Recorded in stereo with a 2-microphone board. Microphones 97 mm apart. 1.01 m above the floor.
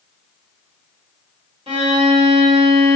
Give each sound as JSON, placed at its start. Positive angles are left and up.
{"t": 1.7, "sound": "a violin", "side_deg": -80, "distance_m": 1.6}